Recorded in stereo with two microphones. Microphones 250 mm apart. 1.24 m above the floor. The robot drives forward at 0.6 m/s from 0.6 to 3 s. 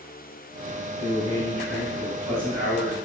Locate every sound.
1.0 s a man speaking: 10° left (ahead or behind), 1.9 m; by 3.0 s 5° left (ahead or behind), 3 m